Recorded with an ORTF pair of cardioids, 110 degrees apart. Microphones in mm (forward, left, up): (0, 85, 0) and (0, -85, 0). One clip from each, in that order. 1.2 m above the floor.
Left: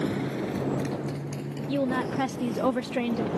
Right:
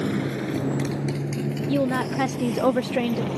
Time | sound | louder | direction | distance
0.0 | a motorcycle | right 3 dB | 30° right | ?
1.7 | a woman speaking | right 3 dB | 20° right | ?